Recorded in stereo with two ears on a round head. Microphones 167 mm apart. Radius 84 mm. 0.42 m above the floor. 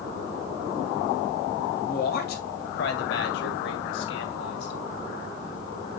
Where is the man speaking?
45° left (ahead or behind), 2 m; by 4.8 s 65° left (ahead or behind), 4 m.